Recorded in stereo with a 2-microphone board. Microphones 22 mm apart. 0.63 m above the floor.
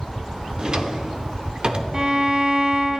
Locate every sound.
0.6 s a drawer: 35° right (ahead or behind), 0.7 m
1.9 s a violin: 30° right (ahead or behind), 0.6 m